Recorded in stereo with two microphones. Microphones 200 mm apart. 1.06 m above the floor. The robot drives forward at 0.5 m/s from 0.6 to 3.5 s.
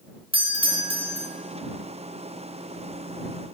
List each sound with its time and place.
0.3 s a doorbell: 25° right (ahead or behind), 1.2 m; by 1.3 s 30° right (ahead or behind), 1.2 m